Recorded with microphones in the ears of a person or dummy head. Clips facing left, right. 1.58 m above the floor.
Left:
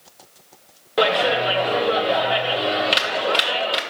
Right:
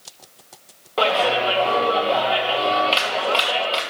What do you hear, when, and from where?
1.0 s a clap: 20° left (ahead or behind), 1.0 m